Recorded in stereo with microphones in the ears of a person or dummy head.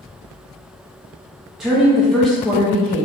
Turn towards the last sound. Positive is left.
turn(degrees=5)  # may be behind; listen again after turning